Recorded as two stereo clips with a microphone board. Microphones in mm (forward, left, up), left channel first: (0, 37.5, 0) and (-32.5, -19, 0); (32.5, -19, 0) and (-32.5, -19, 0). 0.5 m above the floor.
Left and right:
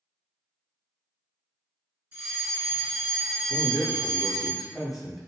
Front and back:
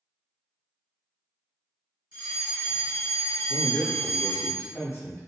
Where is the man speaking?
35° right, 1.0 m.